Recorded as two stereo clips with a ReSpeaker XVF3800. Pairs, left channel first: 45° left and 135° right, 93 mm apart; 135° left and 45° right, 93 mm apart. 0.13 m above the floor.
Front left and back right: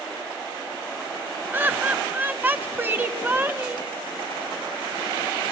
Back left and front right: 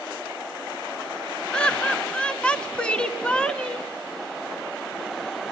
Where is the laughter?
165° right, 1.2 m.